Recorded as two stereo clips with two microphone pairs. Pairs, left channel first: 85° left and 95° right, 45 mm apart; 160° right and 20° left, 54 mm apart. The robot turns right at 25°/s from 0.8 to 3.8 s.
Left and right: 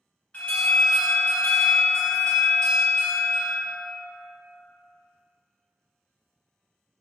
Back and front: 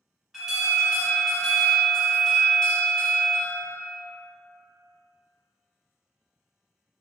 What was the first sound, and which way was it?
An alarm, 90° left.